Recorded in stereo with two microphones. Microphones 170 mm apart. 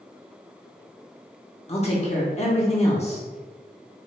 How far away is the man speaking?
About 1.0 m.